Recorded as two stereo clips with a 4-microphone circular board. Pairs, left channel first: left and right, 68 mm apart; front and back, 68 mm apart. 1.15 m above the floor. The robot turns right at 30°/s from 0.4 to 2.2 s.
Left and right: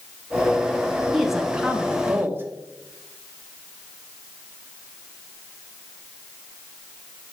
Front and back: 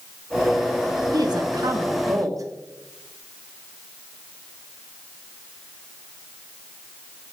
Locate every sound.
1.1 s a woman speaking: straight behind, 1.6 m; by 2.5 s 150° right, 1.6 m